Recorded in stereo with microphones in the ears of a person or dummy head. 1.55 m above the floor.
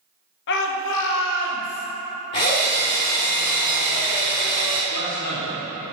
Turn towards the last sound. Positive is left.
turn(degrees=60)  # may be behind; listen again after turning